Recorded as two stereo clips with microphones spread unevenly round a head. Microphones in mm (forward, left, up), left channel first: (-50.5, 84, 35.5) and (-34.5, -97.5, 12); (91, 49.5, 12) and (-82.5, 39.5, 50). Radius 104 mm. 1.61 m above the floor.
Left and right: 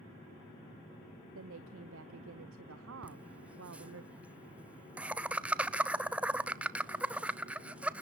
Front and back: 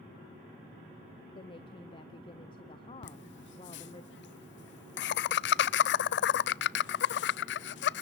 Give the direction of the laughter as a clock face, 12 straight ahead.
12 o'clock.